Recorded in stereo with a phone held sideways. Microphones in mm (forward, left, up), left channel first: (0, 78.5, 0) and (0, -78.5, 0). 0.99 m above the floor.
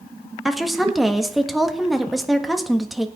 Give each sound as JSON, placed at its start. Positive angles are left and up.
{"t": 0.5, "sound": "a woman speaking", "side_deg": 0, "distance_m": 1.4}